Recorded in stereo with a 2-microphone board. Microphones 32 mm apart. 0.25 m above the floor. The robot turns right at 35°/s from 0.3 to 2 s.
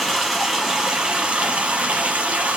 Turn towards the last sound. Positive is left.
turn(degrees=-110)